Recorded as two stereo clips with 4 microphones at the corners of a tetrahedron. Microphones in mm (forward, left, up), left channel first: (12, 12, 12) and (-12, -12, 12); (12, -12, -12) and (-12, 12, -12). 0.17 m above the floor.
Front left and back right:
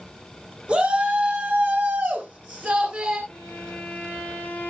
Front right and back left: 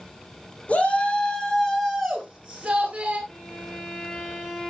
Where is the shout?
85° right, 2.5 m; by 3.2 s 170° right, 2.5 m.